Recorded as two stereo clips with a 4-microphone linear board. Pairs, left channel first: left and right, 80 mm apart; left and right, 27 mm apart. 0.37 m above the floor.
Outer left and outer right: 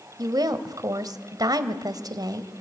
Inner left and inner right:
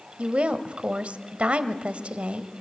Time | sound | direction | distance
0.2 | a woman speaking | 55° right (ahead or behind) | 1.4 m